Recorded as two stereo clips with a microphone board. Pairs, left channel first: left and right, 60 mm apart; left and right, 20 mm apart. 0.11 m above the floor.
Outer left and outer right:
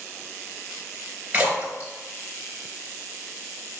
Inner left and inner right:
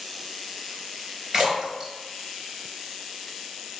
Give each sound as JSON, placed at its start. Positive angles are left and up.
{"t": 1.3, "sound": "a splash", "side_deg": -25, "distance_m": 1.0}